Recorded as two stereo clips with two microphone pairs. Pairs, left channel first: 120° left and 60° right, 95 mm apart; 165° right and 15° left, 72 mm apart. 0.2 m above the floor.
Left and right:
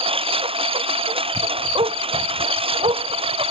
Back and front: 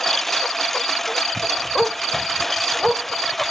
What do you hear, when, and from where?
0.0 s a lawn mower: 75° right
1.8 s a dog barking: 75° right